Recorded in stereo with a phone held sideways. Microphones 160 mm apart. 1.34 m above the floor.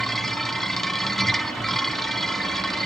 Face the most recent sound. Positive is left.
turn(degrees=0)  # may be behind; listen again after turning